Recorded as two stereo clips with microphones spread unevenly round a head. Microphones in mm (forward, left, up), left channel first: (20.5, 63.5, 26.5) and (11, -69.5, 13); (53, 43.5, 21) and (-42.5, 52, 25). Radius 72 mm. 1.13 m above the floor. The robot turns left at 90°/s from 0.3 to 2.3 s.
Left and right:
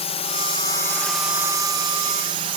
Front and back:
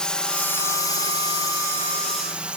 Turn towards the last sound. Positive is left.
turn(degrees=-110)